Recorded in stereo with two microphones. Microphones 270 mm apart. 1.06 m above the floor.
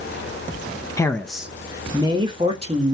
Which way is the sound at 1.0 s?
10° left (ahead or behind).